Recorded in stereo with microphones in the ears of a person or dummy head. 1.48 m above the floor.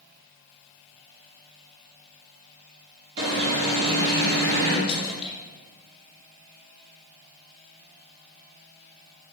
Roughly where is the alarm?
Right.